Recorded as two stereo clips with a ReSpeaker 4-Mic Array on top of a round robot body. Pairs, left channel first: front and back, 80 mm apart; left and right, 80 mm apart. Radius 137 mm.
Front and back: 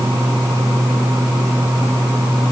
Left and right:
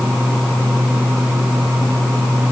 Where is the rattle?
No rattle in this recording.